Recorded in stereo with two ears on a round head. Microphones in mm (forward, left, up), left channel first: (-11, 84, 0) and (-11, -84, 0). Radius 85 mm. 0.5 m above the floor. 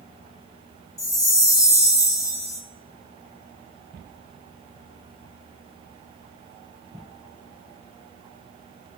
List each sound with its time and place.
1.0 s a chime: 20° left (ahead or behind), 0.9 m